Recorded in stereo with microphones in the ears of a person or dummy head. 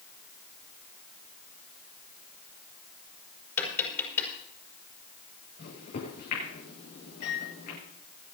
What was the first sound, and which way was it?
Tapping, 15° left (ahead or behind).